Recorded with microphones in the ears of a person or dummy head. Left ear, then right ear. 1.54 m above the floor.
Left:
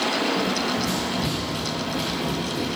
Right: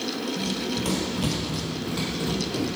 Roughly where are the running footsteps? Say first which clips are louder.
Left 5 dB; right.